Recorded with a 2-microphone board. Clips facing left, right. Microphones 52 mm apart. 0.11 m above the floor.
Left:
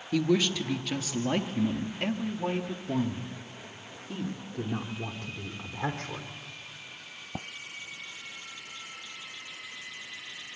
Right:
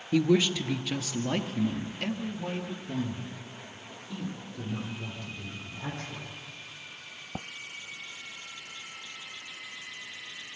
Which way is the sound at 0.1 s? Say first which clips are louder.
Right 2 dB; 20° right (ahead or behind).